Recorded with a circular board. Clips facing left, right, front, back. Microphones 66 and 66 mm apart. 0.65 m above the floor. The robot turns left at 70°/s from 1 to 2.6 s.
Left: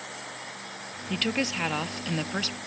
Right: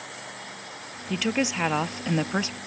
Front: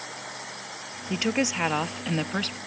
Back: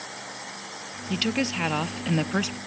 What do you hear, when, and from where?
1.1 s a woman speaking: 20° right, 0.5 m; by 2.6 s 120° right, 0.5 m